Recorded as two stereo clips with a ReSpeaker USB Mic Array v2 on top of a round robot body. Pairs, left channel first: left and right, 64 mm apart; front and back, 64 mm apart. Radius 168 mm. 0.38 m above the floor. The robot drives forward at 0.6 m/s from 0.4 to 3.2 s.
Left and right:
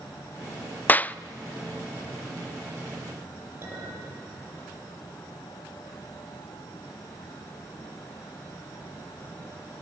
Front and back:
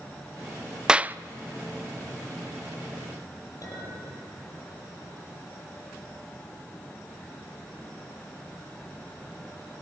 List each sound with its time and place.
0.9 s a clap: 115° left, 0.6 m; by 1.2 s 140° left, 0.6 m
3.6 s a clink: 35° right, 8.5 m